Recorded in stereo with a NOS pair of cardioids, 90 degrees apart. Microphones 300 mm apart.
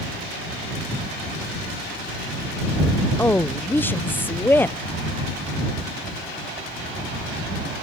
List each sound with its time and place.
3.2 s a woman speaking: 5° left